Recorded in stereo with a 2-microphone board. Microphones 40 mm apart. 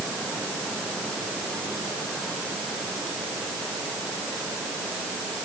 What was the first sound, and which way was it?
Only background noise.